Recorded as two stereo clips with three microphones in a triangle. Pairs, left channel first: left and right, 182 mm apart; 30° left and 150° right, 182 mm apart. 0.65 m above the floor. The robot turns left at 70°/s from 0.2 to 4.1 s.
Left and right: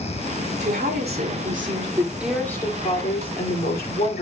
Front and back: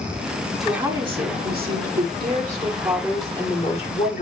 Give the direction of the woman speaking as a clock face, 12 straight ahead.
2 o'clock.